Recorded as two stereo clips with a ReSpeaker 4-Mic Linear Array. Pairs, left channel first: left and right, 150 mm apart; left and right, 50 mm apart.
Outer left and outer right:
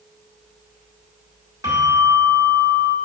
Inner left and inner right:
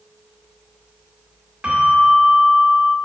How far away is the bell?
About 1.8 m.